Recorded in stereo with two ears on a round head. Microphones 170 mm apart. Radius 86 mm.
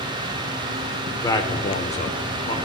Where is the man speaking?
15° left (ahead or behind), 1.0 m; by 2.6 s 30° left (ahead or behind), 1.2 m.